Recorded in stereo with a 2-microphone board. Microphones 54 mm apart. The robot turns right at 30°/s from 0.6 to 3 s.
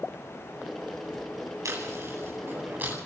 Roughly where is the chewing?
Right.